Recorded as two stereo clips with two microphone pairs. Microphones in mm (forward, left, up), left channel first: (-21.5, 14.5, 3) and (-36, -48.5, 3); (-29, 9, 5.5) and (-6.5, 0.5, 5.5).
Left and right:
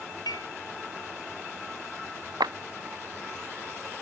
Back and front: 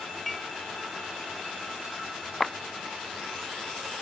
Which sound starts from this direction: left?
Dishes clattering, at 0.3 s.